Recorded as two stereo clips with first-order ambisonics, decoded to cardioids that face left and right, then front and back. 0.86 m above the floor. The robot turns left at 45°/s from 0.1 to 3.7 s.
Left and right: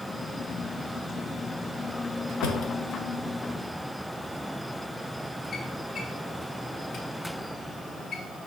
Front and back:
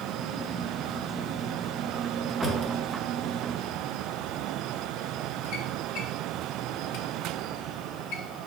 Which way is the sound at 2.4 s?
80° left.